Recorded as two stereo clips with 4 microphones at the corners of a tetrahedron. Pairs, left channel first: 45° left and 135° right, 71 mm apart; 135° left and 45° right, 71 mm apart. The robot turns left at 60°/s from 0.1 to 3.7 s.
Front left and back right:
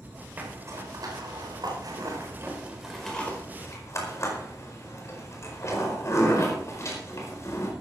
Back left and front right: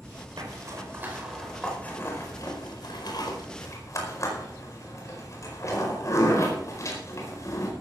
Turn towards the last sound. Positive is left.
turn(degrees=90)